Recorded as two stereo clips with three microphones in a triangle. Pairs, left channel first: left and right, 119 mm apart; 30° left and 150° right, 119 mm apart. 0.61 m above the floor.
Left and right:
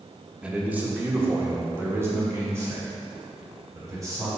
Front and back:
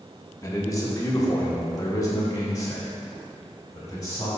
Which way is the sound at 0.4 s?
15° right.